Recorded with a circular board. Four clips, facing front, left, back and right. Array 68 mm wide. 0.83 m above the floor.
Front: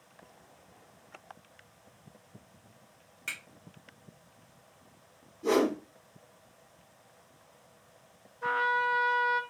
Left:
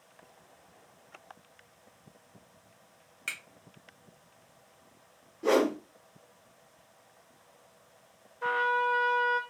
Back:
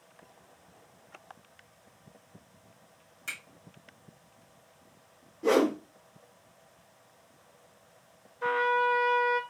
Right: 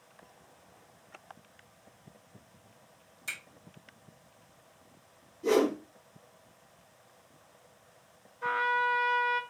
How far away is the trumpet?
About 0.8 m.